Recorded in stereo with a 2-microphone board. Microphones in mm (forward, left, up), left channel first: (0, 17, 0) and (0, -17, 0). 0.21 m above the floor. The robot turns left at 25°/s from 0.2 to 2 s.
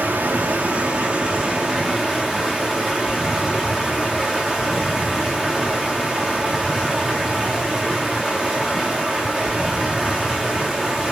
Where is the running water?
130° right, 4 m; by 11.1 s 175° right, 4 m.